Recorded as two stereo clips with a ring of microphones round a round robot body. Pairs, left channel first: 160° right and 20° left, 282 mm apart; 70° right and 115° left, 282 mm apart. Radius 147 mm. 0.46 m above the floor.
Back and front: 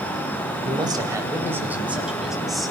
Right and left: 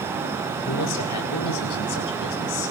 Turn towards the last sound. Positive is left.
turn(degrees=-70)